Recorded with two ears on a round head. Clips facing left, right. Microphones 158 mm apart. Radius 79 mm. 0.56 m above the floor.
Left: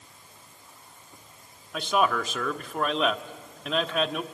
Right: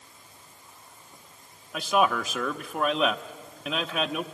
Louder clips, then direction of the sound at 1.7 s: Right 1 dB; 5° right (ahead or behind).